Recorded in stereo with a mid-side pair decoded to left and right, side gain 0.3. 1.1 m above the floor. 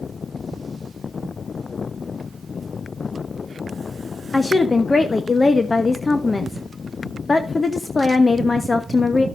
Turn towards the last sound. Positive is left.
turn(degrees=35)